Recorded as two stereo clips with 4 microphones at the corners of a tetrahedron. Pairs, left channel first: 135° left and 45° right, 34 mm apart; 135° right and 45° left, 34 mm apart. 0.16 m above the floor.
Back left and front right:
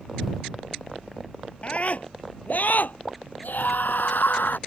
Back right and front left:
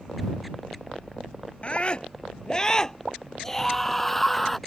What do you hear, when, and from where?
1.6 s a scream: straight behind; by 4.6 s 140° left